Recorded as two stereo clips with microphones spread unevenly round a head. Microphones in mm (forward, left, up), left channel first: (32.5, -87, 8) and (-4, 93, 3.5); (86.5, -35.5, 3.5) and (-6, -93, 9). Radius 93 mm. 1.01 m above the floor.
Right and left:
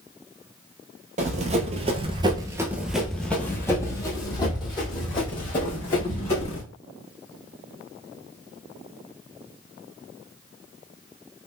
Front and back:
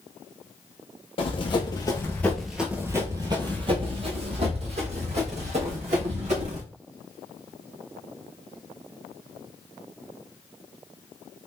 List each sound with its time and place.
1.2 s running footsteps: 60° left, 1.5 m; by 6.6 s 140° right, 3.5 m